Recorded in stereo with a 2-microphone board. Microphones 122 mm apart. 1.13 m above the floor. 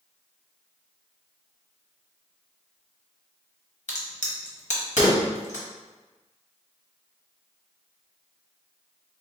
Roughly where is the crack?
Left.